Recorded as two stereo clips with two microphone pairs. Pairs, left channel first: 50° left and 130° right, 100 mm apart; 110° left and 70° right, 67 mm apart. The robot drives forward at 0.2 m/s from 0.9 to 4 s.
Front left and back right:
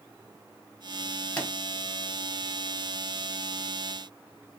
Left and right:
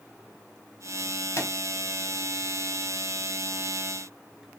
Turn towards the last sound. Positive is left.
turn(degrees=145)